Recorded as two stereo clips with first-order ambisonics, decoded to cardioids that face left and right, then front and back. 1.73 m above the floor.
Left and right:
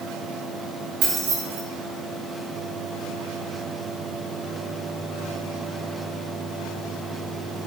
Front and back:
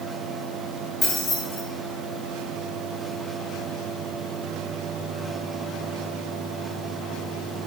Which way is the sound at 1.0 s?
65° right.